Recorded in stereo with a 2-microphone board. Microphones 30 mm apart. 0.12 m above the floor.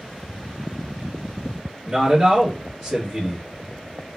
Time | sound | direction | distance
1.9 | a man speaking | 10° right (ahead or behind) | 1.8 m